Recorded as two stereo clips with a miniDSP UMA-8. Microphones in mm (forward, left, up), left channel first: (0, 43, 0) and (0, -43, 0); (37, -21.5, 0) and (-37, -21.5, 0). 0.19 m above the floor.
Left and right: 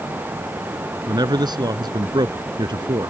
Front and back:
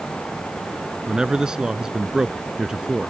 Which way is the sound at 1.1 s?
100° right.